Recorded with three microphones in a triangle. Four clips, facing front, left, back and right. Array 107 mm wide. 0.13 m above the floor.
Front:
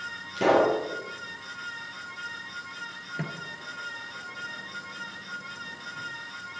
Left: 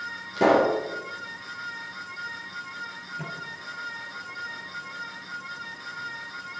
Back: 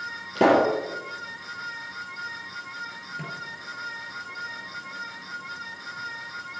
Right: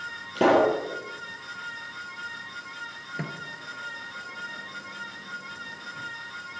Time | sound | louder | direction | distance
0.3 | a pop | even, back 2 dB | 160° right | 3.5 m
3.2 | a microwave | right 2 dB, front 1 dB | 55° right | 1.7 m